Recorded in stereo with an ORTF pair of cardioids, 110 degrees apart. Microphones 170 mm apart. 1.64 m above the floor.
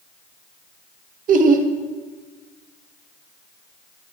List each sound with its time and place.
1.3 s laughter: 55° right, 0.9 m